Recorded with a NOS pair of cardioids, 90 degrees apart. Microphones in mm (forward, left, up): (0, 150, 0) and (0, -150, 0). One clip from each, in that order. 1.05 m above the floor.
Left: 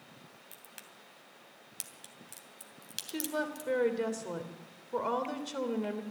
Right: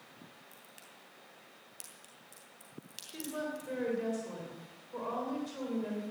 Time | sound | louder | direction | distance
0.5 | a crack | left 2 dB | 55° left | 2.5 m
3.1 | a woman speaking | left 4 dB | 65° left | 3 m